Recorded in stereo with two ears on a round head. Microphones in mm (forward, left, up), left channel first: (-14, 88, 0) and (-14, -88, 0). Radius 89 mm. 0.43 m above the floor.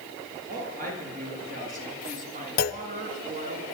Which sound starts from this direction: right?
A woman speaking, at 0.5 s.